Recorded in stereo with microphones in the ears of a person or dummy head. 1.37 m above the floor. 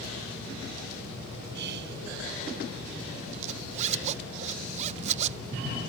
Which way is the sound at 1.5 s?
70° right (ahead or behind).